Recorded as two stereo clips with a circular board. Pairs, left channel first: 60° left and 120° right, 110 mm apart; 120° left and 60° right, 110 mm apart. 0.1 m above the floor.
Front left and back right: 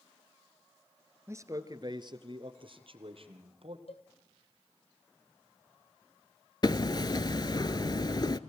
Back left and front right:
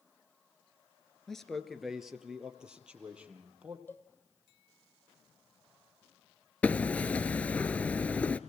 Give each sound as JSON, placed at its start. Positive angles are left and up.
{"t": 1.3, "sound": "a man speaking", "azimuth_deg": -160, "distance_m": 1.5}
{"t": 3.9, "sound": "a cowbell", "azimuth_deg": 50, "distance_m": 1.5}
{"t": 6.6, "sound": "hammering", "azimuth_deg": 50, "distance_m": 0.5}